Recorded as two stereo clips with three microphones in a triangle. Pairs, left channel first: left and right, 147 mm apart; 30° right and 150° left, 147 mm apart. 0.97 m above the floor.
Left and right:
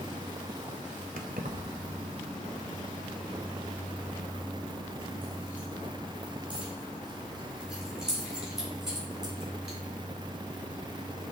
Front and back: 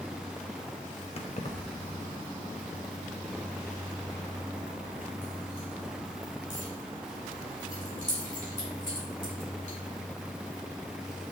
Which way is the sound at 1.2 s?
75° right.